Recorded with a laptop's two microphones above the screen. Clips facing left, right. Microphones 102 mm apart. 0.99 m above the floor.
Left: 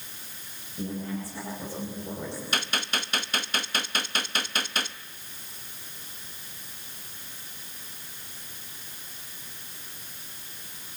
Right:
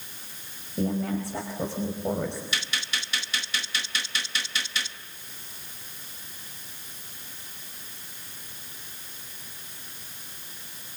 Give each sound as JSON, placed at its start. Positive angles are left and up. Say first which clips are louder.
{"t": 0.8, "sound": "a woman speaking", "louder": "right 6 dB", "side_deg": -80, "distance_m": 4.5}
{"t": 2.5, "sound": "a gunshot", "louder": "left 3 dB", "side_deg": 55, "distance_m": 0.6}